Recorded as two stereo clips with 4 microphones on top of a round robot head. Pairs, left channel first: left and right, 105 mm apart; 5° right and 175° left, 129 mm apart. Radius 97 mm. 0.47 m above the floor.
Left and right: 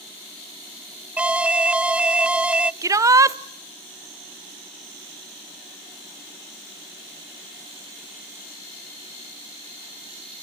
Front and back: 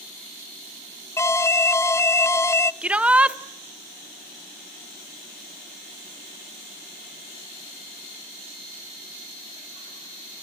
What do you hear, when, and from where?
1.2 s an alarm: 30° right, 0.6 m
2.8 s a shout: 110° right, 0.9 m